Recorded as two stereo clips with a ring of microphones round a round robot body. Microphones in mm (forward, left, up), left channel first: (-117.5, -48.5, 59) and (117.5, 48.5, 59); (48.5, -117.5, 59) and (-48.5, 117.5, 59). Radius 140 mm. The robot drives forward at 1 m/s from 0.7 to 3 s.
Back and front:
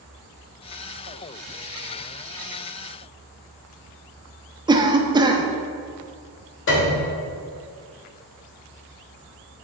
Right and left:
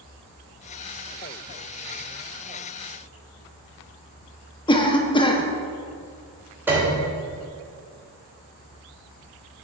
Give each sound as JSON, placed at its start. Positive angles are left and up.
{"t": 4.7, "sound": "a cough", "azimuth_deg": -25, "distance_m": 0.8}
{"t": 6.7, "sound": "a piano", "azimuth_deg": -170, "distance_m": 1.5}